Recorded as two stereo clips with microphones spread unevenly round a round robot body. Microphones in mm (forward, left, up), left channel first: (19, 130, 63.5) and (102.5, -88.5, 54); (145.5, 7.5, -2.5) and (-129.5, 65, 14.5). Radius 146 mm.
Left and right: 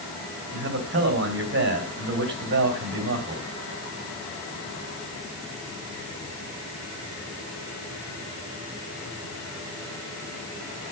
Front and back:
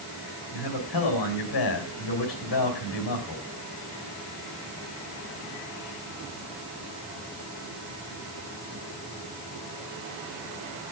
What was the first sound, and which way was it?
A man speaking, 30° right.